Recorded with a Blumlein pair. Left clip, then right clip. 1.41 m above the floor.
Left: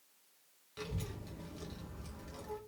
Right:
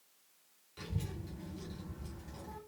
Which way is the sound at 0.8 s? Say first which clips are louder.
Left 1 dB; 15° left.